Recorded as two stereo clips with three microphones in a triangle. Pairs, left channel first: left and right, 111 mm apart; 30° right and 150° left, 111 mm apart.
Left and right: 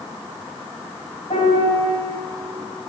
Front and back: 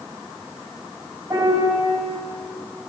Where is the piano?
95° left, 3 m.